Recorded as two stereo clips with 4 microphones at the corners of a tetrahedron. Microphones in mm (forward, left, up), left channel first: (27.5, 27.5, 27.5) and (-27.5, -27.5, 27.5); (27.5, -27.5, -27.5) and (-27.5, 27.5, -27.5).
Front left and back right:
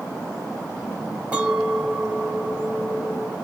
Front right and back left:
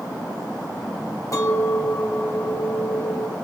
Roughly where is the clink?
Ahead right.